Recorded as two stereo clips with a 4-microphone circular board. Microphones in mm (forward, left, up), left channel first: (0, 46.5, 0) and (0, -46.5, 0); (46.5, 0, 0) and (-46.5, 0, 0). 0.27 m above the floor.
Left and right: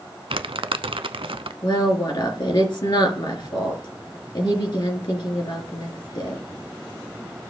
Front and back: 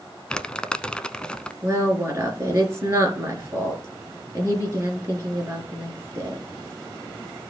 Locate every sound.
0.3 s crumpling: 80° right, 0.5 m
1.6 s a woman speaking: 120° left, 3.5 m